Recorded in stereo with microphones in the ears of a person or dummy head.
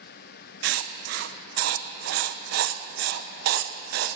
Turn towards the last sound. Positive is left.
turn(degrees=-70)  # may be behind; listen again after turning